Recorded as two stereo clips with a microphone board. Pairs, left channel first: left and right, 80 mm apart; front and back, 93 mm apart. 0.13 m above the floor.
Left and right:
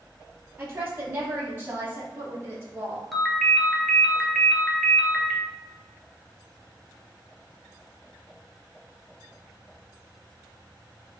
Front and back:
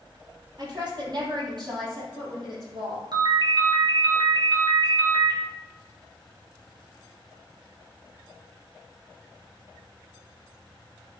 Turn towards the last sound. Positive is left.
turn(degrees=175)